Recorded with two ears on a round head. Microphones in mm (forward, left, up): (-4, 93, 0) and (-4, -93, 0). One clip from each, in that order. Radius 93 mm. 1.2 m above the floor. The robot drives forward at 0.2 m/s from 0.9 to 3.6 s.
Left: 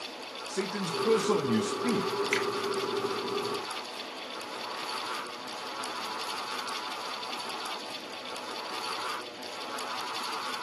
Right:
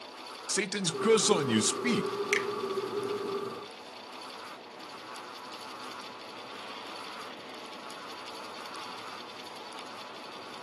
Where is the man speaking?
65° right (ahead or behind), 0.6 m; by 2.1 s 75° right (ahead or behind), 0.5 m.